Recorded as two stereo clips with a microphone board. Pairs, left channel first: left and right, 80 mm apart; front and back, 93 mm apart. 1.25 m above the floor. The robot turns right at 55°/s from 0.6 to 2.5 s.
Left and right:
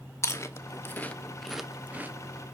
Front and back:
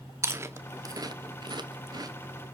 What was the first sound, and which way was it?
Chewing, 130° left.